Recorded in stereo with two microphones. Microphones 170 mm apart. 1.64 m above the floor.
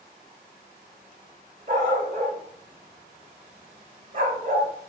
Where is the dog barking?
45° right (ahead or behind), 2.5 m.